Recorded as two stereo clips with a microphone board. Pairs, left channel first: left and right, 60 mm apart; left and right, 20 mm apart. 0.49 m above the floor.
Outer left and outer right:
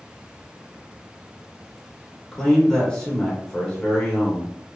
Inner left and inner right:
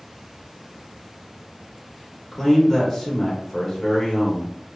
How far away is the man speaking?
About 0.7 m.